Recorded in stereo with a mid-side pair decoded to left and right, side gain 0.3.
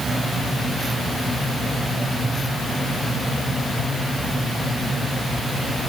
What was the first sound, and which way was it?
Only background noise.